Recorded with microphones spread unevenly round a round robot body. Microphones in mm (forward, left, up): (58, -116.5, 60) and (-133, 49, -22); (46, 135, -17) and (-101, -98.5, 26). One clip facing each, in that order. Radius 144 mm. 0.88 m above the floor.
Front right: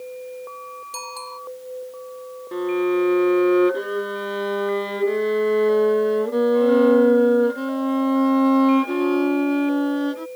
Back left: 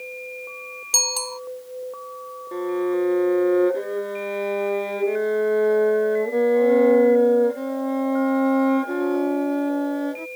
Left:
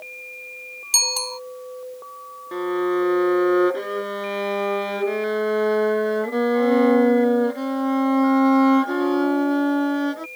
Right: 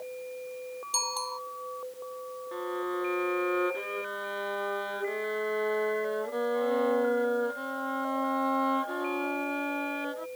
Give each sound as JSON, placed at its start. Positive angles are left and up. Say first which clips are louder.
{"t": 0.9, "sound": "a bicycle bell", "louder": "back left 9 dB, left 7 dB", "azimuth_deg": 100}
{"t": 2.5, "sound": "a violin", "louder": "front right 2 dB, left 12 dB", "azimuth_deg": 30}